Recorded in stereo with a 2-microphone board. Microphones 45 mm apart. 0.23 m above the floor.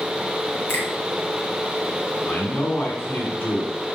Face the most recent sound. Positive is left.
turn(degrees=45)  # may be behind; listen again after turning